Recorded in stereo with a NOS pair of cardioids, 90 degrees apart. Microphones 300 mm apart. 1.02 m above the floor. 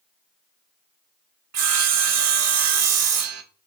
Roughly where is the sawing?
Ahead right.